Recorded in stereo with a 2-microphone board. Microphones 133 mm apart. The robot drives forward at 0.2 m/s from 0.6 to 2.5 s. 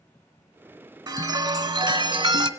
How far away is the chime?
About 0.6 m.